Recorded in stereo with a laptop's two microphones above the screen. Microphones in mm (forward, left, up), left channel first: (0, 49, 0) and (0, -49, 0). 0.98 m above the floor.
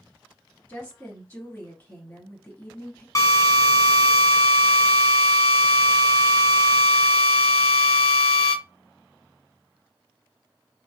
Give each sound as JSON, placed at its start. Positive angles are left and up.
{"t": 0.7, "sound": "a woman speaking", "side_deg": 20, "distance_m": 1.4}
{"t": 3.1, "sound": "a drill", "side_deg": 30, "distance_m": 0.7}